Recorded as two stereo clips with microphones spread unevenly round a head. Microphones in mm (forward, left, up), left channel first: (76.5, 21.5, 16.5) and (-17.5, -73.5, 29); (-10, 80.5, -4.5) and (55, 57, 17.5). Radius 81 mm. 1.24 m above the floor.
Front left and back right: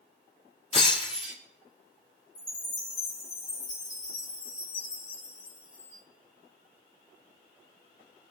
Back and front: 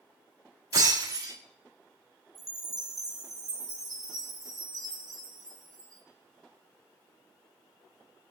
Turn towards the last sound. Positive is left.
turn(degrees=5)